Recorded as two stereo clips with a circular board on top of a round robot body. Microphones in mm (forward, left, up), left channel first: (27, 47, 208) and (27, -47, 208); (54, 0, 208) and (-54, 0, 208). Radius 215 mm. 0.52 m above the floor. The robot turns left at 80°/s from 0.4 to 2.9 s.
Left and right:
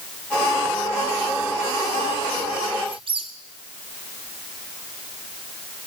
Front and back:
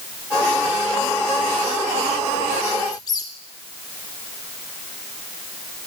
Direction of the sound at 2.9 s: 50° right.